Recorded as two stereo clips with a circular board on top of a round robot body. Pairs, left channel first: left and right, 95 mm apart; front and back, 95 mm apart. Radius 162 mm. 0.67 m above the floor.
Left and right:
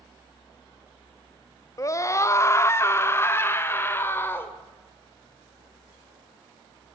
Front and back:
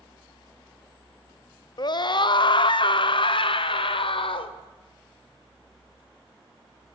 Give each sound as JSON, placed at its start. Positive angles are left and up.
{"t": 1.8, "sound": "a scream", "azimuth_deg": 35, "distance_m": 1.1}